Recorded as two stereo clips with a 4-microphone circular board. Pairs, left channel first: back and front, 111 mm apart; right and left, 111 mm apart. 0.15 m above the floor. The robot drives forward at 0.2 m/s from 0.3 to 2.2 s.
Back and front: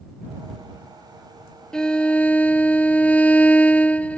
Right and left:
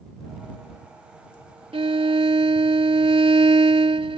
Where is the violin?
95° left; by 4.2 s 105° left.